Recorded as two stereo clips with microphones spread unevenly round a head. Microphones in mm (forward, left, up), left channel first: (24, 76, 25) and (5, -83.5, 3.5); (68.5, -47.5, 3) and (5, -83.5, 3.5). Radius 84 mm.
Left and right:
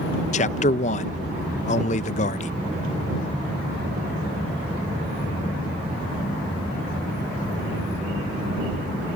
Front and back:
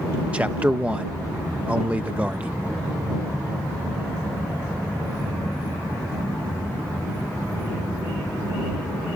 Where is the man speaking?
130° left.